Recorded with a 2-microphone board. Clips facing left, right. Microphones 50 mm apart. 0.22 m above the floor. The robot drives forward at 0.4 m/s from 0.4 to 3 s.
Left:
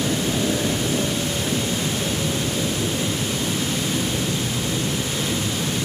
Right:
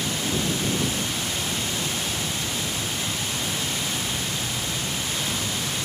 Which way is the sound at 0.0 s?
55° left (ahead or behind).